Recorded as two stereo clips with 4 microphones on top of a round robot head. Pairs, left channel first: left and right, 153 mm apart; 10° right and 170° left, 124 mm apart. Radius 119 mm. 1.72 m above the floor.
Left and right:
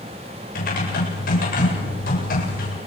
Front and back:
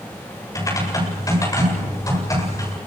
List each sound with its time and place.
0.6 s typing on a keyboard: 50° left, 8 m